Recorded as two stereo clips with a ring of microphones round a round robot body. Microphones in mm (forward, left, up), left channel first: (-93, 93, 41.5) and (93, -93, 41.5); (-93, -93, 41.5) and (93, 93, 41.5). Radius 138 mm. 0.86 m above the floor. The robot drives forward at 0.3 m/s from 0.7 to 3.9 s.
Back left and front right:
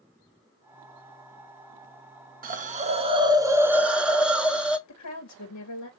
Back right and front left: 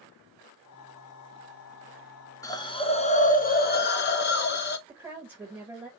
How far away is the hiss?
About 0.7 m.